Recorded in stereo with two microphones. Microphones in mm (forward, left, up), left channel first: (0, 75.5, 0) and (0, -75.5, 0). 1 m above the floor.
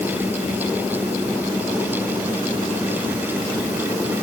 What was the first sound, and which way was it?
Only background noise.